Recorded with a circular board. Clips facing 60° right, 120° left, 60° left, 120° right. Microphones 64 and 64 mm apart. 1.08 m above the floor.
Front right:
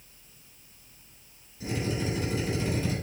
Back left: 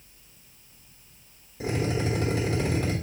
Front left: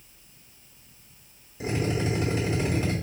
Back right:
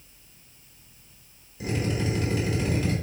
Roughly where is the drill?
Behind left.